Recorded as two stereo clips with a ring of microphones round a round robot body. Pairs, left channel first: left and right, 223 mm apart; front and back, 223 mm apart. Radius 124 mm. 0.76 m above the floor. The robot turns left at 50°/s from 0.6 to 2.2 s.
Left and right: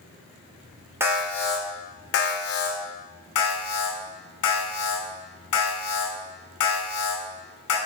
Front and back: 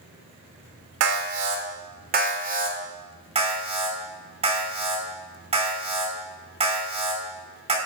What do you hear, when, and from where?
1.0 s an alarm: 170° right, 3 m; by 2.8 s 130° left, 3 m
3.4 s an alarm: 120° left, 5.5 m